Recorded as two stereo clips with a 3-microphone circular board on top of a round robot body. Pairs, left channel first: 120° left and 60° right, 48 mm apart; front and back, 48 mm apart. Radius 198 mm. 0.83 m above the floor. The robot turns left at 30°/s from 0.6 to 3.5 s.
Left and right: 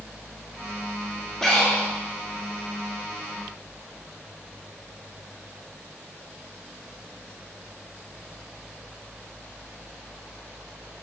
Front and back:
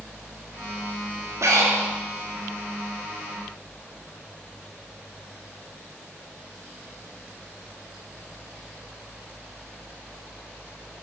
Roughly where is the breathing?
Behind right.